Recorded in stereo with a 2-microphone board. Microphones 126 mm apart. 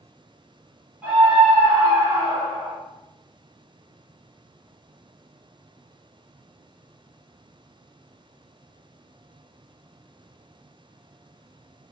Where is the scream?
10° right (ahead or behind), 1.8 m; by 2.8 s 25° right (ahead or behind), 1.1 m.